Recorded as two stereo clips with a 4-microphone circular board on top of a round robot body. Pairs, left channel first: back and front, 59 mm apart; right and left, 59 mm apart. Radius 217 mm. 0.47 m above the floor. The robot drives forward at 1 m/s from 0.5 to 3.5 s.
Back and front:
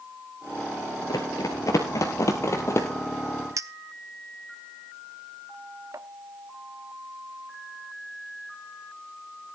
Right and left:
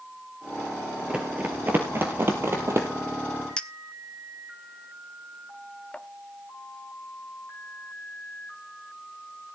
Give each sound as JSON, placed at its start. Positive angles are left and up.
{"t": 1.1, "sound": "running footsteps", "azimuth_deg": 160, "distance_m": 0.6}
{"t": 3.6, "sound": "a clink", "azimuth_deg": -20, "distance_m": 0.8}